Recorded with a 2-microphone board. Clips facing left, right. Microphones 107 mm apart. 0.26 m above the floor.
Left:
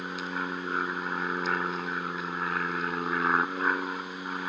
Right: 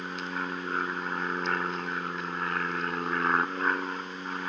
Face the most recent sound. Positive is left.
turn(degrees=5)  # may be behind; listen again after turning